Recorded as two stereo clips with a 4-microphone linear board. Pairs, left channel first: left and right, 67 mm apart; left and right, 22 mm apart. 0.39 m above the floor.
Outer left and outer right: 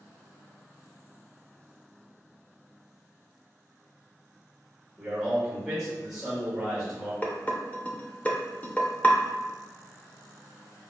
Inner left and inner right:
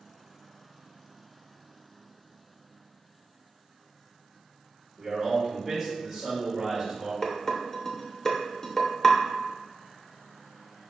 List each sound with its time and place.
5.0 s a man speaking: 5° right (ahead or behind), 1.5 m
7.2 s dishes clattering: 25° left (ahead or behind), 0.7 m